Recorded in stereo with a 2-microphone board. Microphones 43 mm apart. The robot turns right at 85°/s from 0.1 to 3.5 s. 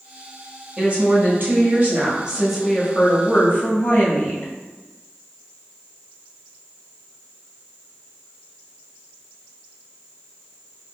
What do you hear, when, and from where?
0.8 s a woman speaking: 155° right, 1.6 m; by 4.5 s 75° left, 1.6 m